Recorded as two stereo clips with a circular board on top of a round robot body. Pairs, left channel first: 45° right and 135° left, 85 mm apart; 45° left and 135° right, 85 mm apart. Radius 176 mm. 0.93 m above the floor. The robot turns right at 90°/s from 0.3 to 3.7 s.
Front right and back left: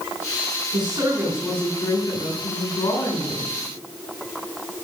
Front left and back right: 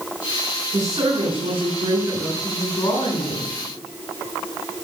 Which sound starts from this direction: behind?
A woman speaking, at 0.7 s.